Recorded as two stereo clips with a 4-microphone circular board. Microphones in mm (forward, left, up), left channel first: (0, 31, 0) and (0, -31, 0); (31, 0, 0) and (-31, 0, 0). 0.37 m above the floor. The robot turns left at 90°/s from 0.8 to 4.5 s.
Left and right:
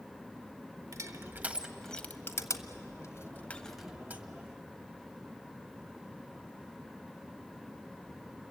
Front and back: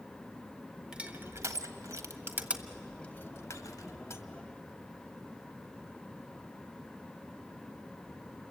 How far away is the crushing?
About 1.3 m.